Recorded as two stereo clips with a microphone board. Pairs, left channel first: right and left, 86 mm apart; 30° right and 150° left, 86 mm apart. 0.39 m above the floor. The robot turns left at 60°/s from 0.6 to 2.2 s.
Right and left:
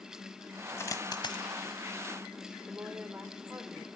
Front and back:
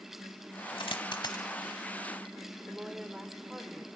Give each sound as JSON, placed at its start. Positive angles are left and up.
{"t": 0.8, "sound": "a dropped coin", "azimuth_deg": -30, "distance_m": 1.0}
{"t": 2.7, "sound": "a woman speaking", "azimuth_deg": 80, "distance_m": 1.1}